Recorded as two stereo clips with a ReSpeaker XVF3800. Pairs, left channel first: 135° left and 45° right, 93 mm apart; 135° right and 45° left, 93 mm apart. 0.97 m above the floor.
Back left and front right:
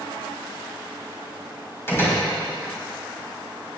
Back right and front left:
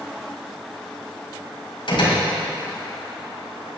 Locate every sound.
1.9 s a door slam: 160° right, 5 m